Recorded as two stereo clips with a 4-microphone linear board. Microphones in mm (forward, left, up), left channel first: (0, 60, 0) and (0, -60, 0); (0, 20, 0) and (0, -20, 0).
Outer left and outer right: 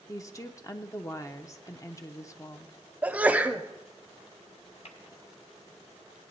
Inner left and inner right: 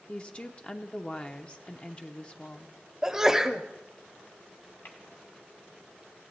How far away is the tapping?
About 2 m.